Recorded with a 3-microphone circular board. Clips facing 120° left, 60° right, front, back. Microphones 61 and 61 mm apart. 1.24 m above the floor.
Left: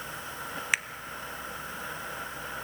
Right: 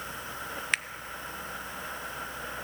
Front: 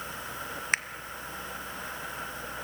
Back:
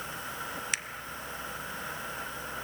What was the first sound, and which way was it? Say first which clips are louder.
A finger snap: left 1 dB, front 9 dB; 40° left.